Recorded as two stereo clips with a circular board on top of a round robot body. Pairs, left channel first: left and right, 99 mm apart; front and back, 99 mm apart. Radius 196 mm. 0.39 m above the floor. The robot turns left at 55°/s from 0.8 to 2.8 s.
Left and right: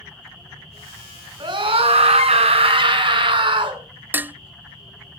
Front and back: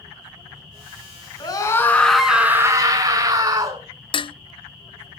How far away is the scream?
About 7.5 m.